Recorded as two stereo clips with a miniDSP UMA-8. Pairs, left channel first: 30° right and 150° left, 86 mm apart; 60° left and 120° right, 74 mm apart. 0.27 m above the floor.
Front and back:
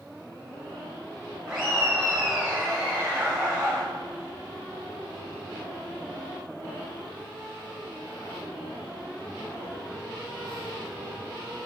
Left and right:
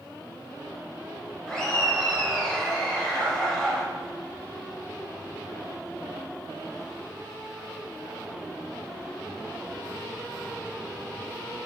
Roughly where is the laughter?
Left.